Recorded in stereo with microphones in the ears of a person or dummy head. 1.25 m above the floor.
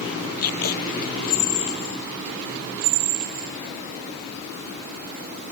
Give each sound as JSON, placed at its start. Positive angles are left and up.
{"t": 0.4, "sound": "tape being pulled", "side_deg": 50}